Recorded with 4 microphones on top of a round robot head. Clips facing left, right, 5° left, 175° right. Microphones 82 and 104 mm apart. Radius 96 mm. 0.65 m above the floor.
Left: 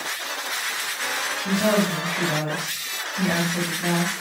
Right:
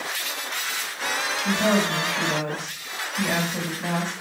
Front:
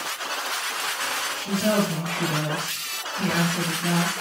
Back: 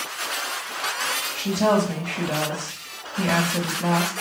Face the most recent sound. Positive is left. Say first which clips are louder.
# left 1 dB, back 3 dB
turn(degrees=175)